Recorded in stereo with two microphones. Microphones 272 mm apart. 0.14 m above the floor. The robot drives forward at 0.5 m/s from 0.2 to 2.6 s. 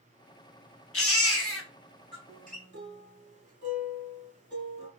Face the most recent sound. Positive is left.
turn(degrees=-30)  # may be behind; listen again after turning